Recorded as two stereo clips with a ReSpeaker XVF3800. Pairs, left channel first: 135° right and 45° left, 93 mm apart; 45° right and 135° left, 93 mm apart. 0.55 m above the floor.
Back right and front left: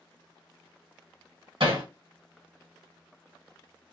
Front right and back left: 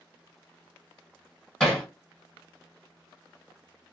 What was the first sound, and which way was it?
Hammering, 40° left.